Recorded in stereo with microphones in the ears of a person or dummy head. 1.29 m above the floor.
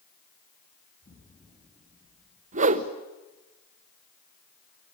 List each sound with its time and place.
1.0 s an explosion: 30° left (ahead or behind), 5.5 m
2.5 s a whoosh: 40° right (ahead or behind), 0.9 m